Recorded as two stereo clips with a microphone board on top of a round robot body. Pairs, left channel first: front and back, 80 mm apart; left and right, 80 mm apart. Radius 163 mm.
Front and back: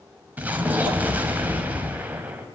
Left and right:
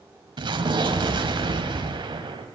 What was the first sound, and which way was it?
An explosion, 110° right.